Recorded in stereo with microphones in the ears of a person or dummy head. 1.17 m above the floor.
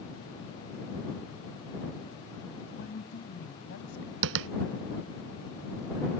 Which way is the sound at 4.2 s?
55° right (ahead or behind).